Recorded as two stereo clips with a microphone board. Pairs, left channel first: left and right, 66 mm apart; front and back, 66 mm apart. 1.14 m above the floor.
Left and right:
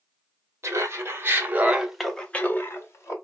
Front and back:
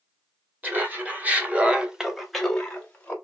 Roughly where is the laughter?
Behind right.